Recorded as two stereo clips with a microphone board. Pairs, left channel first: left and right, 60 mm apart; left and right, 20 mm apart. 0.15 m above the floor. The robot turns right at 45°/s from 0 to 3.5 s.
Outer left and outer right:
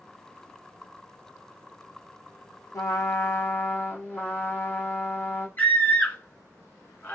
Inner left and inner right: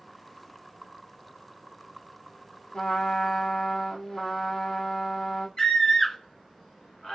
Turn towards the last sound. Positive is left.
turn(degrees=35)  # may be behind; listen again after turning